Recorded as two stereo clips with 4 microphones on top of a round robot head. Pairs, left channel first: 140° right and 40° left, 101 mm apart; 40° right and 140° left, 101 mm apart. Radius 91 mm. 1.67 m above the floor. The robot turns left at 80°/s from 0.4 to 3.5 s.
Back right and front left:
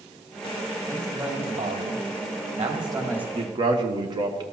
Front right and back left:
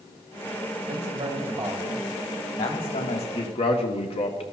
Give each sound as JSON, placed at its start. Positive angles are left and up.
{"t": 0.9, "sound": "a man speaking", "azimuth_deg": 150, "distance_m": 3.0}
{"t": 3.4, "sound": "a man speaking", "azimuth_deg": 5, "distance_m": 1.7}